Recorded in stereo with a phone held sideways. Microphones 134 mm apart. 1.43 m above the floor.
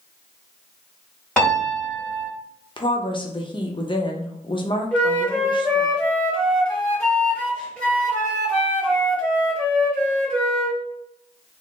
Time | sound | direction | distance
1.4 | a piano | 5° left (ahead or behind) | 1.8 m
2.8 | a woman speaking | 35° left (ahead or behind) | 0.7 m
4.9 | a flute | 10° left (ahead or behind) | 1.3 m